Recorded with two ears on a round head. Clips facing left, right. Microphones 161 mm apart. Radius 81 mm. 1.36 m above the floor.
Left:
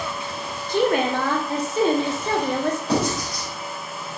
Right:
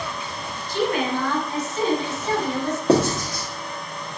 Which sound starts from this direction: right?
Writing, at 2.9 s.